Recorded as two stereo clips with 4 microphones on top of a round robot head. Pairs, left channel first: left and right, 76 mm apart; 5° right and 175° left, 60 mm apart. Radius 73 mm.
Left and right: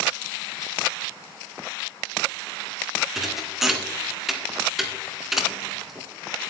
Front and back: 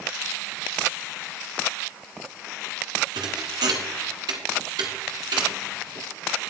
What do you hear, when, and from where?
3.1 s a thud: 175° right, 1.5 m